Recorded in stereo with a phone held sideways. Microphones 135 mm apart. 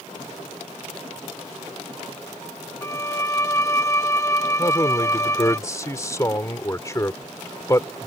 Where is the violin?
25° left (ahead or behind).